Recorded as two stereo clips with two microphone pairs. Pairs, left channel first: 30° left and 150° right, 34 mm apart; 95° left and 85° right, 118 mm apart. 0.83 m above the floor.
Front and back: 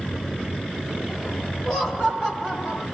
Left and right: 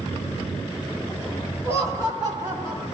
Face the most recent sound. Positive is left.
turn(degrees=-40)